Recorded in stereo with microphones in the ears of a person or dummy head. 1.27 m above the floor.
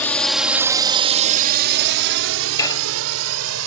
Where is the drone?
10° left (ahead or behind); by 3.7 s 85° right.